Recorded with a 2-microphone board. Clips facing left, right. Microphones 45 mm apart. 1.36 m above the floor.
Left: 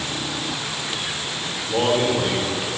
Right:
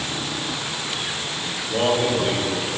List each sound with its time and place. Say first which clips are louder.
1.7 s a man speaking: left 1 dB; 50° left (ahead or behind), 4 m